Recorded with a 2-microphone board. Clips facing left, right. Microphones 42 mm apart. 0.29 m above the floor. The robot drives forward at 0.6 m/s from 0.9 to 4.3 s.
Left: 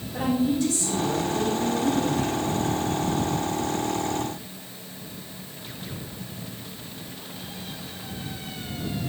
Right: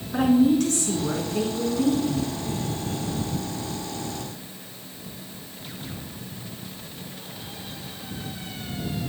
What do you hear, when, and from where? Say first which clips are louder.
0.1 s a woman speaking: right 5 dB; 65° right (ahead or behind), 3 m; by 2.4 s 70° right (ahead or behind), 3 m